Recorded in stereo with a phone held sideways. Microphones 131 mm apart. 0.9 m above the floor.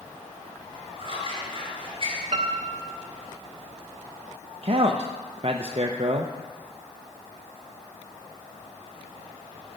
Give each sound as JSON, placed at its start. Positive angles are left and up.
{"t": 1.0, "sound": "scissors", "side_deg": -45, "distance_m": 4.5}
{"t": 2.3, "sound": "a piano", "side_deg": -65, "distance_m": 1.1}
{"t": 4.6, "sound": "a man speaking", "side_deg": -45, "distance_m": 0.7}